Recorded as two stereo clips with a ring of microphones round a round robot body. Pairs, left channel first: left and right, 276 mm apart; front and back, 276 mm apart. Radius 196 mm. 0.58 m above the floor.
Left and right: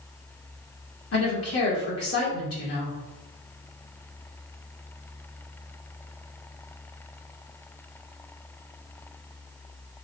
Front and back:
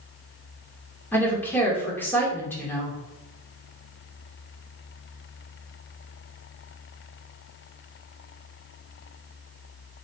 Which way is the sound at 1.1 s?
80° left.